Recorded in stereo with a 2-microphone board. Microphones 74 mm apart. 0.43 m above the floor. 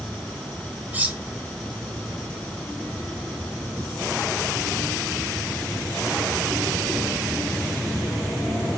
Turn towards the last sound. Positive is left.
turn(degrees=-25)  # may be behind; listen again after turning